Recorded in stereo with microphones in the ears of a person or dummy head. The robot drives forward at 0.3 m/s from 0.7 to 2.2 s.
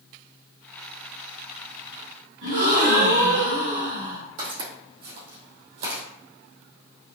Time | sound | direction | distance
2.4 | a gasp | 65° right (ahead or behind) | 2 m
4.4 | footsteps | 50° right (ahead or behind) | 2 m